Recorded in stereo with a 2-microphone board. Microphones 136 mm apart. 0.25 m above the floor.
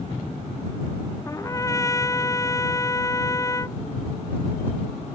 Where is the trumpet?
25° left (ahead or behind).